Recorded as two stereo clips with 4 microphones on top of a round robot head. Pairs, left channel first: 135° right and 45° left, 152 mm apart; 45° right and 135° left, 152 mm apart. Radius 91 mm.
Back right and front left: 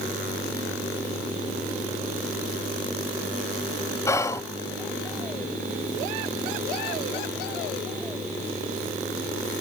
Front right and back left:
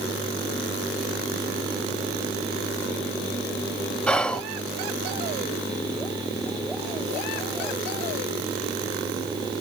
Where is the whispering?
120° right, 0.7 m.